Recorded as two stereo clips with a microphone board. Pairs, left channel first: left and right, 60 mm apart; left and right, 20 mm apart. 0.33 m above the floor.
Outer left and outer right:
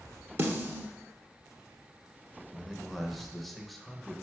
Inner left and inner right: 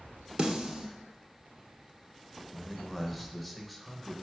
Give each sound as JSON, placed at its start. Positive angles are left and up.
{"t": 0.4, "sound": "a snare drum", "side_deg": -40, "distance_m": 1.4}
{"t": 2.5, "sound": "a man speaking", "side_deg": 0, "distance_m": 0.8}